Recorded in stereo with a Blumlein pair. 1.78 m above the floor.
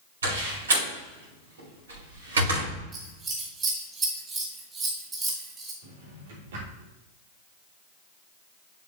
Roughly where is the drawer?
Ahead right.